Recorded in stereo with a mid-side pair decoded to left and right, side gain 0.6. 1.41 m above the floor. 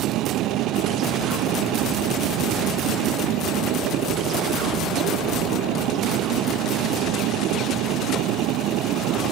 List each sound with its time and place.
0.0 s a machine running: 65° right